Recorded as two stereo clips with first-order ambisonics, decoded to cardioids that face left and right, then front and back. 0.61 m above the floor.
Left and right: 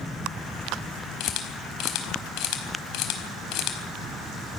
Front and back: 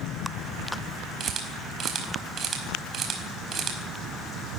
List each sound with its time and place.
1.2 s a camera shutter: 120° left, 4.5 m